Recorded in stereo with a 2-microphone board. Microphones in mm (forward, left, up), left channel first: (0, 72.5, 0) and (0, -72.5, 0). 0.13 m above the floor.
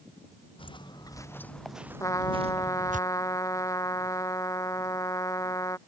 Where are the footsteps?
35° left (ahead or behind); by 3.0 s 65° right (ahead or behind).